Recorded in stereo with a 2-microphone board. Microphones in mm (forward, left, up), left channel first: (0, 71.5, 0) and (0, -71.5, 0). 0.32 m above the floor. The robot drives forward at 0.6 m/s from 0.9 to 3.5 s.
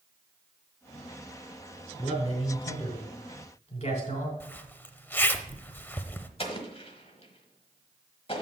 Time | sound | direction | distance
2.0 | a man speaking | 35° left (ahead or behind) | 3.5 m
4.4 | a zipper | 15° left (ahead or behind) | 0.6 m
6.4 | an explosion | 40° left (ahead or behind) | 1.2 m